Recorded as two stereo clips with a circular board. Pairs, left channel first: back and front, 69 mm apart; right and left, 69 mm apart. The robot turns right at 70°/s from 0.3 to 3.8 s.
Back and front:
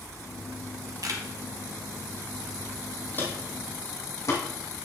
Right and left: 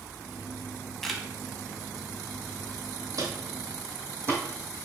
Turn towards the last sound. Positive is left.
turn(degrees=135)